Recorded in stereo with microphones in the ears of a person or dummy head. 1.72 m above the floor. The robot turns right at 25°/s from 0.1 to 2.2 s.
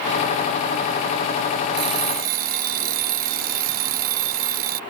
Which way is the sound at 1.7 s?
65° right (ahead or behind).